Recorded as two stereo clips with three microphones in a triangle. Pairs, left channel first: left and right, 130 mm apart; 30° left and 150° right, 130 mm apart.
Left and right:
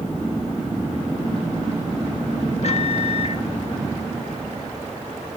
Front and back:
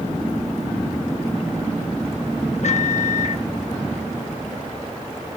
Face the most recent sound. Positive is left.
turn(degrees=55)